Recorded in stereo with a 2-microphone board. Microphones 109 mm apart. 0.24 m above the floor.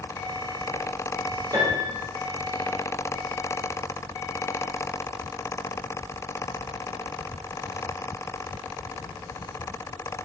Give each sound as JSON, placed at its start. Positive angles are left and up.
{"t": 1.5, "sound": "a piano", "side_deg": -35, "distance_m": 5.5}